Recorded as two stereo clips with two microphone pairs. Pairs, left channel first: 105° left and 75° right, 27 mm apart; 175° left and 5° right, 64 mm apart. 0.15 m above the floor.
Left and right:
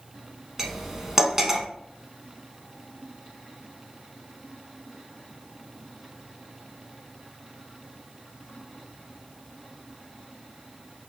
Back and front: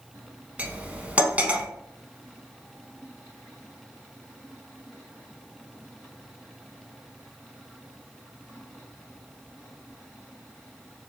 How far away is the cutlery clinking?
About 0.6 m.